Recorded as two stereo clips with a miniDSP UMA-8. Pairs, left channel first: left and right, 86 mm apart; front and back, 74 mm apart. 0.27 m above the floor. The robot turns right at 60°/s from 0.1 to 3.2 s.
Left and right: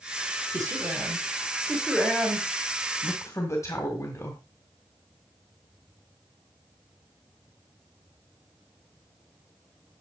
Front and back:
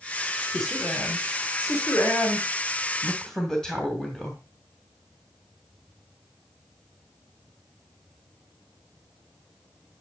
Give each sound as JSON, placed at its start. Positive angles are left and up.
{"t": 0.5, "sound": "a man speaking", "azimuth_deg": -85, "distance_m": 2.0}